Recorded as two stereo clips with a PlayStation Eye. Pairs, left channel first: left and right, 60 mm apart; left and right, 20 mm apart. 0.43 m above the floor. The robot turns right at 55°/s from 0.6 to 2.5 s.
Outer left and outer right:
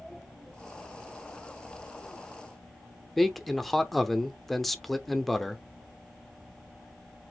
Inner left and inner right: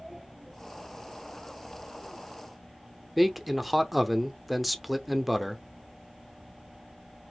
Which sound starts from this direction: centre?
A man speaking, at 3.2 s.